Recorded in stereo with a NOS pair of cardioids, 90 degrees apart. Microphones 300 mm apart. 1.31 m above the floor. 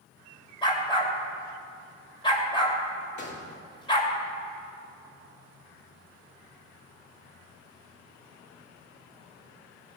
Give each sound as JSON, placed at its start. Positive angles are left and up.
{"t": 0.6, "sound": "a dog barking", "azimuth_deg": 15, "distance_m": 2.5}
{"t": 3.2, "sound": "a gunshot", "azimuth_deg": 40, "distance_m": 2.0}